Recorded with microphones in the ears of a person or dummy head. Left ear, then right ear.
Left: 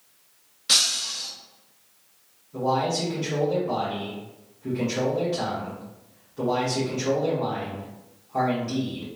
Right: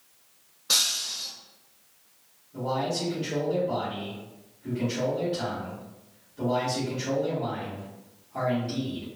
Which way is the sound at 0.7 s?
50° left (ahead or behind).